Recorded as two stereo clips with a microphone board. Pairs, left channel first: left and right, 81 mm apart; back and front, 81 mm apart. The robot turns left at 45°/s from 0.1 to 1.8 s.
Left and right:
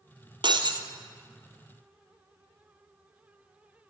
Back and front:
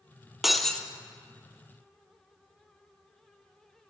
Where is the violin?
I don't hear a violin.